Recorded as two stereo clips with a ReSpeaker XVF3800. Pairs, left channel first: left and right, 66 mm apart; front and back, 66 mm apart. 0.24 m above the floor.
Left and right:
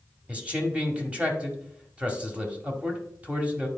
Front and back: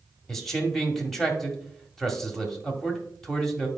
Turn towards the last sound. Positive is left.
turn(degrees=-75)